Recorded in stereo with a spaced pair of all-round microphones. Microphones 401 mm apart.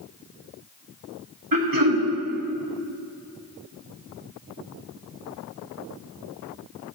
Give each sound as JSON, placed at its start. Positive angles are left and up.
{"t": 1.5, "sound": "throat clearing", "side_deg": -55, "distance_m": 1.2}